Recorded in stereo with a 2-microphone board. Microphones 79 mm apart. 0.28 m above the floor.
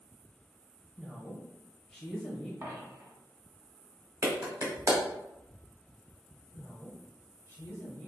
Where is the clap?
45° right (ahead or behind), 1.0 m.